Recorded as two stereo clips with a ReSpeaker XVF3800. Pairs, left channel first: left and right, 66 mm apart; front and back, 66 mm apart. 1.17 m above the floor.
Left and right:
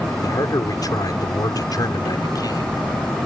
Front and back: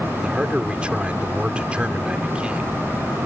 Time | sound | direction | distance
0.2 | a man speaking | 105° left | ?